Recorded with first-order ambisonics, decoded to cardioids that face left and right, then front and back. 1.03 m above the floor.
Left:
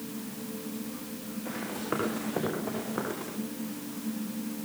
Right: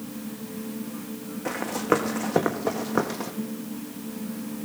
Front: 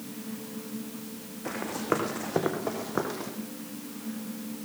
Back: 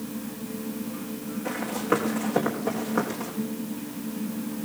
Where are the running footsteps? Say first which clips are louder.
Right 10 dB, back 3 dB; 85° right, 4.5 m.